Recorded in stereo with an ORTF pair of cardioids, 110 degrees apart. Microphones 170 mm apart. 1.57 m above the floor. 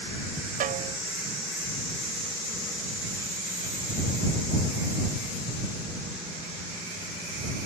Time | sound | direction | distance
0.6 | a snare drum | 55° right | ?